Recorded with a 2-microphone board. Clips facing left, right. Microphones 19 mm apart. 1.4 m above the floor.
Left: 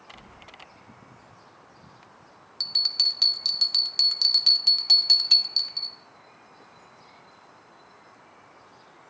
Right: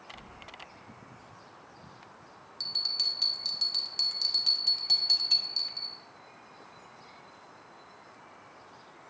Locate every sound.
0.1 s keys jangling: 35° left (ahead or behind), 1.1 m
2.6 s a bell: 30° left (ahead or behind), 0.6 m